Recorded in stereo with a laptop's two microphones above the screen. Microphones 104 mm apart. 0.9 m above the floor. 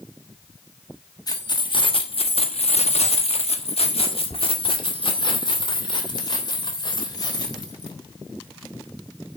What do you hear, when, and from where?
1.3 s keys jangling: 40° left (ahead or behind), 1.3 m